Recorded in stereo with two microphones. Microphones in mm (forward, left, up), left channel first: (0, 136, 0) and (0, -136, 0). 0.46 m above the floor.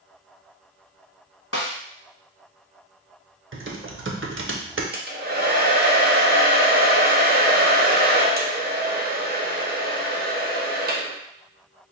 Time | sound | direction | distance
1.5 | a snare drum | 55° left (ahead or behind) | 0.9 m
3.5 | typing on a keyboard | 45° right (ahead or behind) | 0.6 m
4.9 | a hair dryer | 35° right (ahead or behind) | 0.6 m